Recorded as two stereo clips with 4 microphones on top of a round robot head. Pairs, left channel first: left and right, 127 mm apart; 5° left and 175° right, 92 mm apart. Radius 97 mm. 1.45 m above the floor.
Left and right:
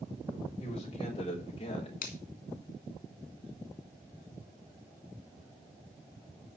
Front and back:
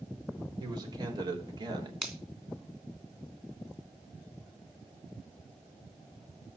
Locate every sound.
0.6 s a man speaking: 145° left, 4 m
2.0 s a finger snap: 105° left, 3 m